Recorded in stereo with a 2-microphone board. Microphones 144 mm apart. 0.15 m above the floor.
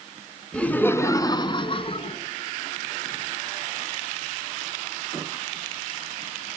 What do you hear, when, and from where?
0.5 s laughter: 10° left (ahead or behind), 1.4 m; by 2.2 s 45° left (ahead or behind), 1.5 m